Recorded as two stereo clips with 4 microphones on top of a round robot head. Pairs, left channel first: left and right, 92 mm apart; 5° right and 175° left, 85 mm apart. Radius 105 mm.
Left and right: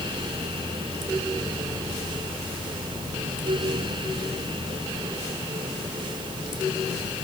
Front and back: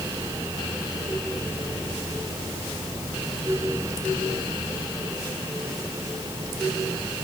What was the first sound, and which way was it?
Only background noise.